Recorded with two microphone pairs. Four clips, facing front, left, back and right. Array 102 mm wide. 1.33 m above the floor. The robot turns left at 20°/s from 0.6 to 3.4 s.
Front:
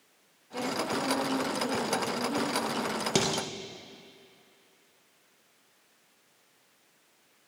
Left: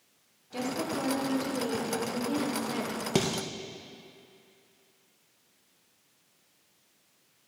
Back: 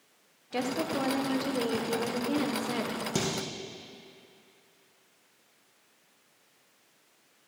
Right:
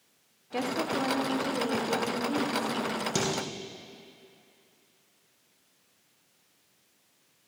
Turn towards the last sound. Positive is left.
turn(degrees=35)